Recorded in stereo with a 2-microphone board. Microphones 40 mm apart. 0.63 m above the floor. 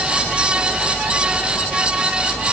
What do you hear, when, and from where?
Only background noise.